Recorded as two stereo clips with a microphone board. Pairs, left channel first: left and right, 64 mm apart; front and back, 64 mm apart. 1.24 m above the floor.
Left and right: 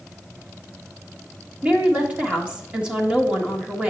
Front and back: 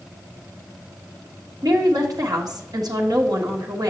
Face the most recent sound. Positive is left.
turn(degrees=-160)